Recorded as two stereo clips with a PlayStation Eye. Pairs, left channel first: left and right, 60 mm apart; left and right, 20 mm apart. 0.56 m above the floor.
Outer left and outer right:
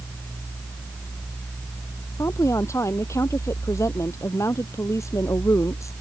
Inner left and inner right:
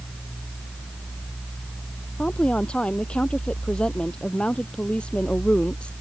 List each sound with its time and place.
2.2 s a woman speaking: 50° left (ahead or behind); by 5.9 s 55° left (ahead or behind)